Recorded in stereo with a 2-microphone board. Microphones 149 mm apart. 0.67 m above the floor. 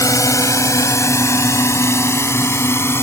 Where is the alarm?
No alarm in this recording.